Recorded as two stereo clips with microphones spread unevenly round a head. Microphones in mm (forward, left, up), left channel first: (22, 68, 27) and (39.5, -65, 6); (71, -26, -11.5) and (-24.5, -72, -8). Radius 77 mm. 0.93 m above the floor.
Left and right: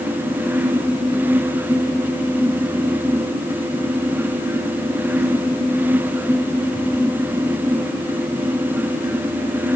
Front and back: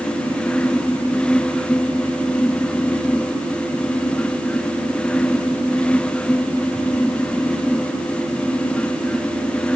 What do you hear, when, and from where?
Only background noise.